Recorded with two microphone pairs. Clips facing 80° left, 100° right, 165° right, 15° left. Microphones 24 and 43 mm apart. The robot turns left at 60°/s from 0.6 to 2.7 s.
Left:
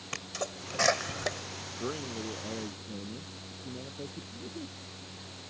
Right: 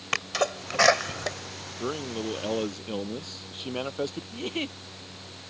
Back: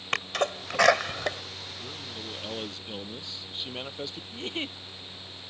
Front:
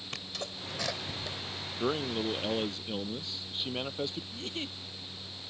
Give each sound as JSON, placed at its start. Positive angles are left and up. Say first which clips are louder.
{"t": 0.1, "sound": "a sneeze", "louder": "right 10 dB, back 13 dB", "azimuth_deg": -145}
{"t": 1.8, "sound": "a man speaking", "louder": "right 6 dB, front 13 dB", "azimuth_deg": -25}
{"t": 4.3, "sound": "a giggle", "louder": "right 10 dB, back 4 dB", "azimuth_deg": -115}